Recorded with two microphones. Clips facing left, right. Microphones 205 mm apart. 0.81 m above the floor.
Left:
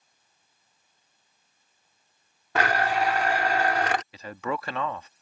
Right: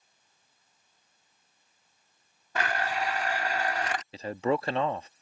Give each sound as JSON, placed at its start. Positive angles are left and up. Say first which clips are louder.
{"t": 2.5, "sound": "a blender", "louder": "left 6 dB", "side_deg": 80}
{"t": 4.1, "sound": "a man speaking", "louder": "right 4 dB", "side_deg": -30}